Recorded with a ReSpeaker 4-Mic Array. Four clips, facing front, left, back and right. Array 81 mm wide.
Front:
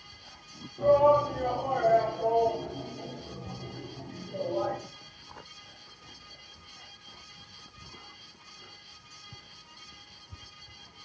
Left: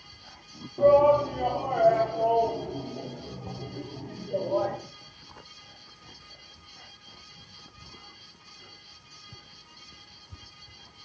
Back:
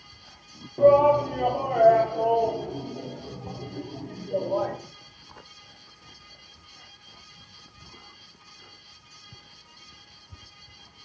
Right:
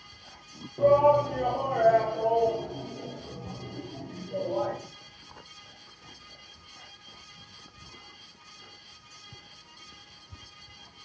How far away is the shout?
About 8 m.